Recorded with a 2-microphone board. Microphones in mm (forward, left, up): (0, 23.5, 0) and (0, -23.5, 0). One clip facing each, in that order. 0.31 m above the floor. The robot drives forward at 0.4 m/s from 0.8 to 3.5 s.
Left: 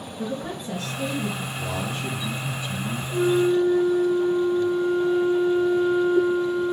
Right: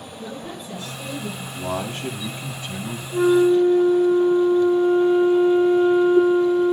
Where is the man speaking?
45° right (ahead or behind), 3 m; by 3.0 s 50° right (ahead or behind), 3 m.